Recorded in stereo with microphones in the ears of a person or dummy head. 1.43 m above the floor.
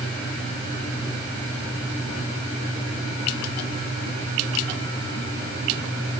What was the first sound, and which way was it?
Only background noise.